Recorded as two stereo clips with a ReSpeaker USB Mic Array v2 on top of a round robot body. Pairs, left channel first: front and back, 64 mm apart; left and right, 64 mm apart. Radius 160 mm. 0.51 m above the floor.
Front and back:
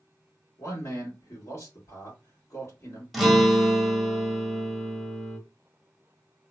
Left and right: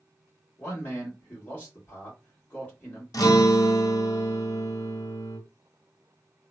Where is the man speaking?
35° left, 1.9 m.